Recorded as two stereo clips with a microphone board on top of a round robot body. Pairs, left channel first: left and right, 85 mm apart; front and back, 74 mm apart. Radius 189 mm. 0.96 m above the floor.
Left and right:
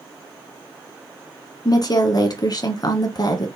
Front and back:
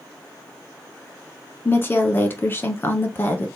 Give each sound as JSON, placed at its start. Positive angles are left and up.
{"t": 1.6, "sound": "a woman speaking", "azimuth_deg": 60, "distance_m": 1.5}